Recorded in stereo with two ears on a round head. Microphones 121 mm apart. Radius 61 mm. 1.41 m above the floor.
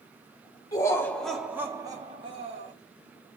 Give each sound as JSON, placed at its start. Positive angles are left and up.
{"t": 0.7, "sound": "laughter", "side_deg": 30, "distance_m": 1.2}